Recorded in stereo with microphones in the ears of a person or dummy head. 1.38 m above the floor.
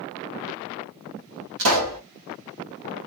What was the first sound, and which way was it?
A pop, 80° right.